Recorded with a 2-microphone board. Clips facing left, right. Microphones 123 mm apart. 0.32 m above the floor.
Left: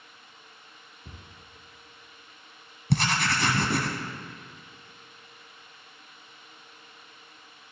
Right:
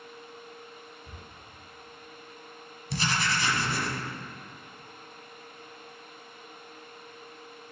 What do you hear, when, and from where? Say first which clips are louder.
1.1 s a cupboard door: right 2 dB; 55° left (ahead or behind), 1.9 m
2.9 s writing: left 3 dB; 60° left (ahead or behind), 1.1 m